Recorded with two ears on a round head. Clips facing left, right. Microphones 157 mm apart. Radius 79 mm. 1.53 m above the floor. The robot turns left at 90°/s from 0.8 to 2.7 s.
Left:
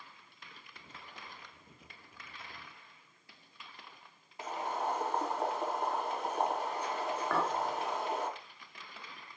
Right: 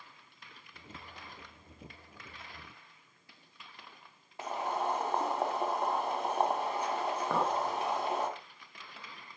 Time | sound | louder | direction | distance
4.4 | boiling | right 2 dB | 55° right (ahead or behind) | 2.5 m
7.3 | a clink | right 2 dB | 15° right (ahead or behind) | 1.4 m